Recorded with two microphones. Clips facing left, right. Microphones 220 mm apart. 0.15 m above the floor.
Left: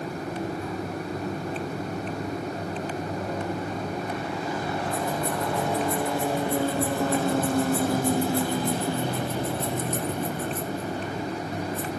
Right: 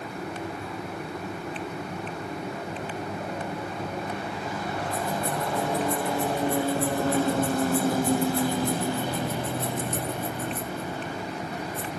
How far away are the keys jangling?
About 4.5 m.